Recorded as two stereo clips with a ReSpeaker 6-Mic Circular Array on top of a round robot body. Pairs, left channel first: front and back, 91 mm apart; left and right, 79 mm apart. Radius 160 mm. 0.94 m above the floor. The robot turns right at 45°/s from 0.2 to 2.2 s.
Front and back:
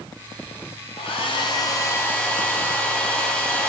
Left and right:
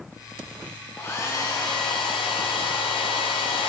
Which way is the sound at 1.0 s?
20° left.